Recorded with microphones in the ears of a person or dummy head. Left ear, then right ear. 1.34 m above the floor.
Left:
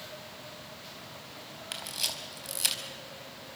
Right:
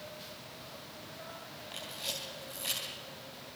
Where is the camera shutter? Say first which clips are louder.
Left 5 dB; 75° left (ahead or behind), 5 m.